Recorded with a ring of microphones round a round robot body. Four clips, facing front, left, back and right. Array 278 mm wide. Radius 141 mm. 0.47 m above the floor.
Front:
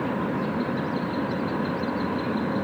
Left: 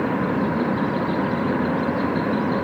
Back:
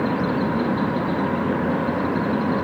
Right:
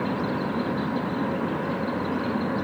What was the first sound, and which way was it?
Only background noise.